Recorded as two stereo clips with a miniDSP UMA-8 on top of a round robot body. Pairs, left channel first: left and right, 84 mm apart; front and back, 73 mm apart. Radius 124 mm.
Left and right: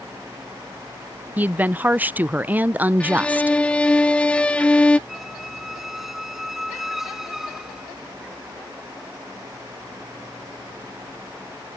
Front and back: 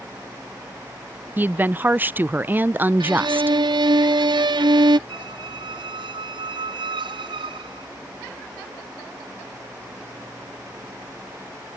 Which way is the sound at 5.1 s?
Straight behind.